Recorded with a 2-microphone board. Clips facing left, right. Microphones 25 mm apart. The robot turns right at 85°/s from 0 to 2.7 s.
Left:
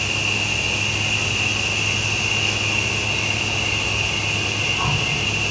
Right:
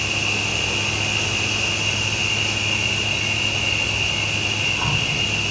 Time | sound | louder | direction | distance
0.0 | an insect | even | 165° right | 1.8 m